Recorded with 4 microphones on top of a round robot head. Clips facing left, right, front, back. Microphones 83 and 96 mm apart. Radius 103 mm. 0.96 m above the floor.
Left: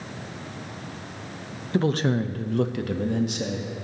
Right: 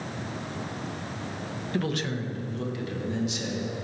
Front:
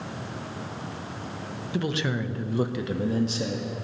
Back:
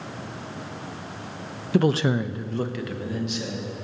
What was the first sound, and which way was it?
A man speaking, 155° left.